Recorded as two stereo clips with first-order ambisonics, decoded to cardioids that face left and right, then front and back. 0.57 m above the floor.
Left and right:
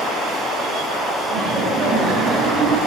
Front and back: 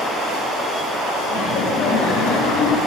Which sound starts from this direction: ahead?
Laughter, at 1.3 s.